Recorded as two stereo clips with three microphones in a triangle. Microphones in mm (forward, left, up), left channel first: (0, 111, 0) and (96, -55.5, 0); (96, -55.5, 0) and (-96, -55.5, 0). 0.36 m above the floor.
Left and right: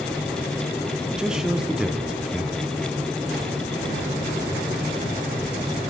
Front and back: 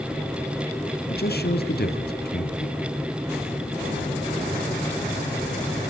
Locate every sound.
1.1 s a man speaking: 25° left, 2.5 m